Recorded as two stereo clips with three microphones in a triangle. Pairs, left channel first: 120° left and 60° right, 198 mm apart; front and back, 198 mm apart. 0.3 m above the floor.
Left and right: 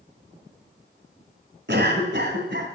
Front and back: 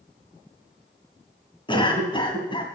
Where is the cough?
60° right, 2 m.